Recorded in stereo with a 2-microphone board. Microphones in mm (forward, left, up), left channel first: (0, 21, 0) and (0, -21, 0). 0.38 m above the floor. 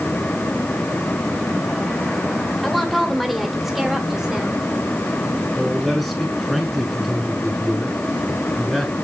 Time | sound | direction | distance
2.6 | a woman speaking | centre (ahead or behind) | 1.6 m
5.5 | a man speaking | 5° left (ahead or behind) | 4.5 m